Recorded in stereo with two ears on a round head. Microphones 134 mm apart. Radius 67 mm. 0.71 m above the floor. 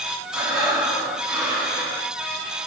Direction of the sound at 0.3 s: 5° right (ahead or behind).